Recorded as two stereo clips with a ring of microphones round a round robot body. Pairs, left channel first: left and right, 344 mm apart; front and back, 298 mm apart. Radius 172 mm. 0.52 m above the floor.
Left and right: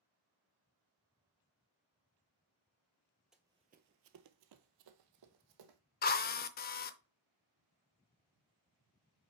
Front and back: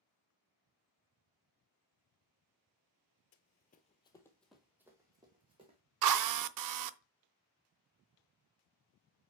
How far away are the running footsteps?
About 0.6 m.